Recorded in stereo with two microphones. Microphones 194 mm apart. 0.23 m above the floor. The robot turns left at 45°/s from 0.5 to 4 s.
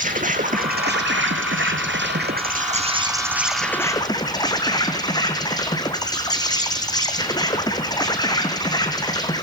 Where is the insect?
45° right, 2.5 m; by 9.4 s 160° left, 2.5 m.